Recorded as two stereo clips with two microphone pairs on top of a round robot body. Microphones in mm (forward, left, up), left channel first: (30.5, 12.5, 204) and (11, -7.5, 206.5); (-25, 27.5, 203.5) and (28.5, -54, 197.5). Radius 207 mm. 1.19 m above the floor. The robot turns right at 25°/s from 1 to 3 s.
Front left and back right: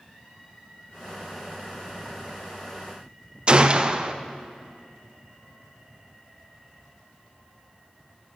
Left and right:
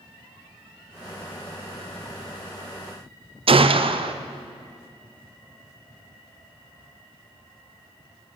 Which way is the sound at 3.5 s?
80° right.